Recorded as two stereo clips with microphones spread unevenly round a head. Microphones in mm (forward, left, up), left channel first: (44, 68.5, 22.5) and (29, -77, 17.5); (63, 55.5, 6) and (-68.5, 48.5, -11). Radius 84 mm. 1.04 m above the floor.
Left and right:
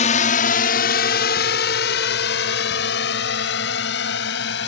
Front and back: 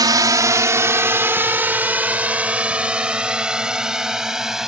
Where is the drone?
125° left; by 4.7 s 95° left.